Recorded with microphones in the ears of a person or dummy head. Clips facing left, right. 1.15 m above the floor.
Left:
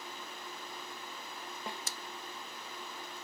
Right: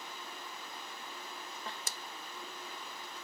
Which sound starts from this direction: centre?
A snare drum, at 1.7 s.